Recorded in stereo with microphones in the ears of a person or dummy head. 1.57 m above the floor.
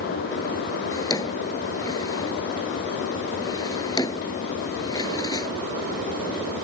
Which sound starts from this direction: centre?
A drawer, at 0.9 s.